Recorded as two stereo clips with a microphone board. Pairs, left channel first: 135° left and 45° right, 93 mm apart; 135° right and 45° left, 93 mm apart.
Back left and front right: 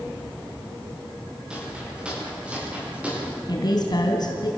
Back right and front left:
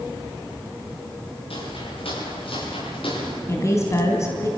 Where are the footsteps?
125° right, 10 m; by 3.4 s 120° right, 11 m.